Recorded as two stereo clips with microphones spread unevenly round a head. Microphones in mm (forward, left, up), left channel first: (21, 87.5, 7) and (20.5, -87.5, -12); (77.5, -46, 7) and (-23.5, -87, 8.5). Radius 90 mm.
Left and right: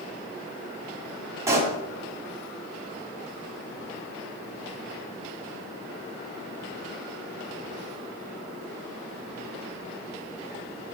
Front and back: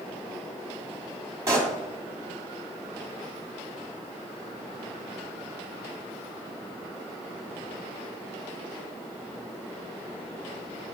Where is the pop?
160° right, 1.4 m.